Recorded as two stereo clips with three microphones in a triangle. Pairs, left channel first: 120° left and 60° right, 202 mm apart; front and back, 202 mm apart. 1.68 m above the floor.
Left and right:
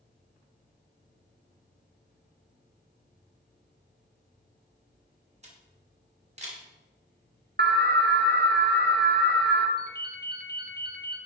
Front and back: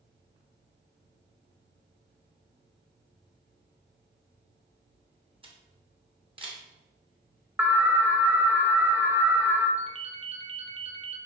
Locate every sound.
5.4 s a camera shutter: 115° right, 2 m
7.6 s an alarm: 100° right, 1.1 m
9.8 s a ringtone: 125° left, 1.2 m